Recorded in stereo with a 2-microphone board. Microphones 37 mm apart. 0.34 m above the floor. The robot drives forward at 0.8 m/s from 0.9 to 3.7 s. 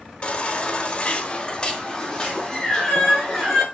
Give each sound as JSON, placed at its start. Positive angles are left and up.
{"t": 0.2, "sound": "a baby crying", "side_deg": 30, "distance_m": 0.6}